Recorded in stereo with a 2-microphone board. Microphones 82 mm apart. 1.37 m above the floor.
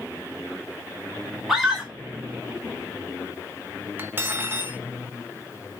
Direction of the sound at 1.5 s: 5° right (ahead or behind).